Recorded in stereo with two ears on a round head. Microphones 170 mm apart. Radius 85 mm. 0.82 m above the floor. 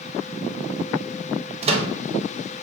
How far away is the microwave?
About 0.6 m.